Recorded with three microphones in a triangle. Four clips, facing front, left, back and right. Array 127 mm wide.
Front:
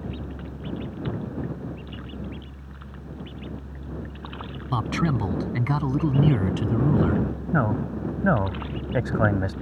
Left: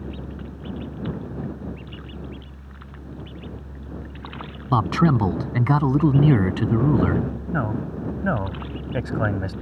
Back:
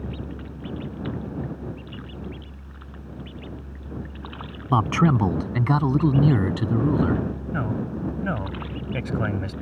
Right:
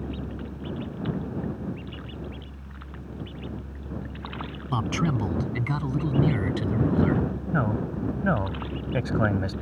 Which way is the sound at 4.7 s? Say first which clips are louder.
Left 7 dB, back 5 dB; 135° left.